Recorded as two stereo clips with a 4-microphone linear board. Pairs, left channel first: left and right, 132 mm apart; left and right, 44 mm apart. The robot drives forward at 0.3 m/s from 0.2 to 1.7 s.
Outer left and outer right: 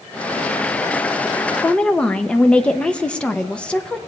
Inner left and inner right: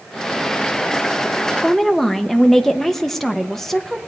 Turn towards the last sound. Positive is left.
turn(degrees=10)  # may be behind; listen again after turning